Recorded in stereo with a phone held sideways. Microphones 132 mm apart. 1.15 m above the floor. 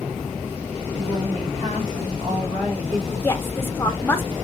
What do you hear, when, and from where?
0.9 s a woman speaking: 50° right (ahead or behind), 1.2 m; by 3.1 s 25° right (ahead or behind), 2 m
3.2 s a woman speaking: 15° left (ahead or behind), 0.7 m